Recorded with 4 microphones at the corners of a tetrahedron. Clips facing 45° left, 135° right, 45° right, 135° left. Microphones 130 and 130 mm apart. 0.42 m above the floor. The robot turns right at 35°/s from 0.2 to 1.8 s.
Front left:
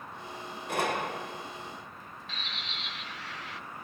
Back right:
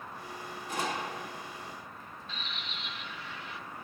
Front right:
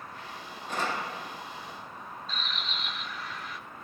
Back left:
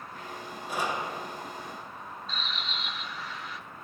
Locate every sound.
0.7 s a gunshot: 55° left, 1.4 m; by 1.4 s 80° left, 1.4 m
2.3 s a bird: 45° left, 2 m